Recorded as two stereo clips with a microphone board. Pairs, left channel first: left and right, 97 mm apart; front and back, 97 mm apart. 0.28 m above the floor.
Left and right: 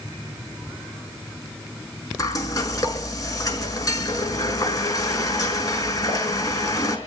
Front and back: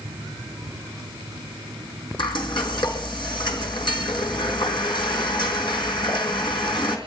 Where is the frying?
40° left, 4.5 m.